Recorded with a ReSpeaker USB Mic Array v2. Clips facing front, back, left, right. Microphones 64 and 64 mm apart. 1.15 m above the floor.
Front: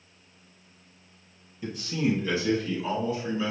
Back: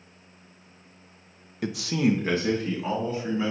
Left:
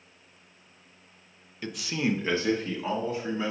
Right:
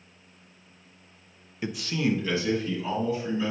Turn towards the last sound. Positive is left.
turn(degrees=125)